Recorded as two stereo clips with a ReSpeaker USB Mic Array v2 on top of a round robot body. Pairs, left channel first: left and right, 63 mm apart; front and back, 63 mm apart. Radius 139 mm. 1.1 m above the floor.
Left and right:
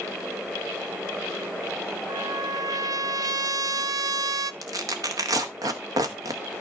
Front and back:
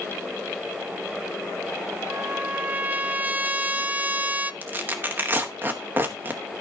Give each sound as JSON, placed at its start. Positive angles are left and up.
{"t": 2.1, "sound": "a trumpet", "azimuth_deg": -115, "distance_m": 0.6}
{"t": 4.6, "sound": "tearing paper", "azimuth_deg": -120, "distance_m": 1.0}